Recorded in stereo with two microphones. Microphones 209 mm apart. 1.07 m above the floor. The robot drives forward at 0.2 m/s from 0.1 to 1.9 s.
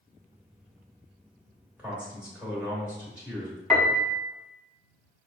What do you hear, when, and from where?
1.8 s a man speaking: 5° right (ahead or behind), 1.1 m
3.7 s a piano: centre (ahead or behind), 0.7 m